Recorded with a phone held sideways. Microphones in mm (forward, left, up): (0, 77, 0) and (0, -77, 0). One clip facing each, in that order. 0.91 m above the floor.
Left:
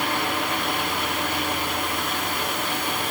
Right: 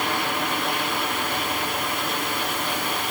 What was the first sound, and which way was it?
Only background noise.